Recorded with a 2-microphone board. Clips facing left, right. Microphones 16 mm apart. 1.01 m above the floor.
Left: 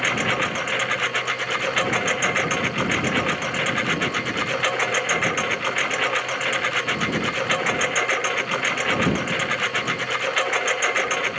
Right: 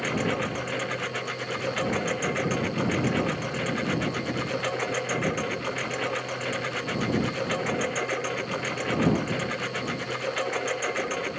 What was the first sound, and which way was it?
A lawn mower, 35° left (ahead or behind).